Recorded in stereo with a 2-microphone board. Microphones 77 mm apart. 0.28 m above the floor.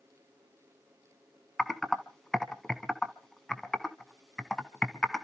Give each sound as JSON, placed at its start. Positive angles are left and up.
{"t": 1.6, "sound": "typing on a keyboard", "side_deg": 5, "distance_m": 1.2}